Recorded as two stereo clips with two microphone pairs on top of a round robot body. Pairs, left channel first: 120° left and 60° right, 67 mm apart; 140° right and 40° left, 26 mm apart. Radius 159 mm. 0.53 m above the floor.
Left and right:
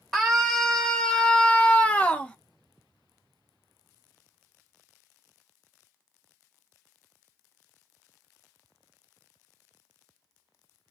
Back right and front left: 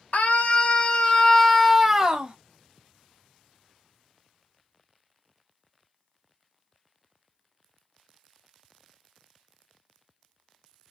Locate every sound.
0.1 s a scream: 145° right, 1.8 m; by 2.4 s 50° left, 1.5 m